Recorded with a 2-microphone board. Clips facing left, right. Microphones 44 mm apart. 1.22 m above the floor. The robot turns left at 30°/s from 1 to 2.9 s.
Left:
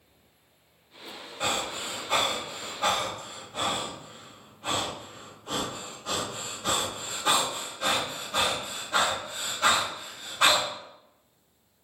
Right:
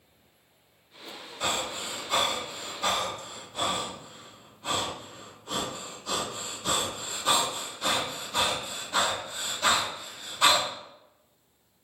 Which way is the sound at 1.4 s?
35° left (ahead or behind).